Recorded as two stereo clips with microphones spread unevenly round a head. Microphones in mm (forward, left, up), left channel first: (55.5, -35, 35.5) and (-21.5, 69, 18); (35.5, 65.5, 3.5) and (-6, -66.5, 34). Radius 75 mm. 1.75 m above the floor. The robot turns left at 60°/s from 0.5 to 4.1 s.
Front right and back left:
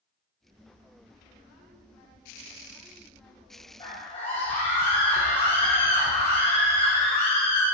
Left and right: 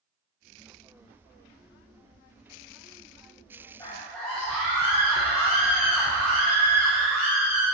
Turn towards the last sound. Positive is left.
turn(degrees=-20)